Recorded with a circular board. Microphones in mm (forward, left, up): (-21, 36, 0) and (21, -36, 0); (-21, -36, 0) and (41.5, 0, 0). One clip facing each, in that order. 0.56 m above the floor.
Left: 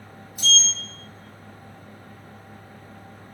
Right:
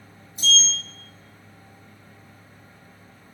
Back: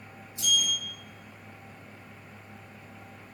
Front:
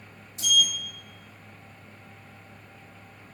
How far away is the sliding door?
About 0.7 m.